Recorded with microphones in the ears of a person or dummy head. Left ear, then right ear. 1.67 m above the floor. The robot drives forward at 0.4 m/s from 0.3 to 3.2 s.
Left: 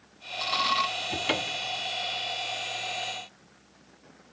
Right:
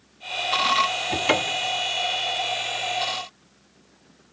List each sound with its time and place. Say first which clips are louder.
1.1 s a cupboard door: right 6 dB; 30° right (ahead or behind), 0.6 m; by 1.8 s 20° right (ahead or behind), 0.9 m